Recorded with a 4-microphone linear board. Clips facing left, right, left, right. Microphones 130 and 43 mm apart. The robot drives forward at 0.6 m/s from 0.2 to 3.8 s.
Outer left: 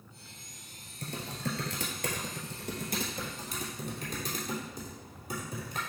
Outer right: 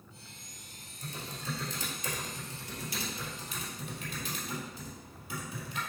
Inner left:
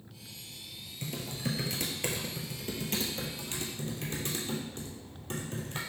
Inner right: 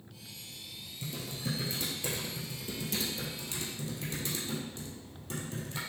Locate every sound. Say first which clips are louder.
1.0 s typing on a keyboard: outer left 4 dB, inner left 2 dB; 70° left (ahead or behind), 1.3 m; by 5.8 s 45° left (ahead or behind), 1.8 m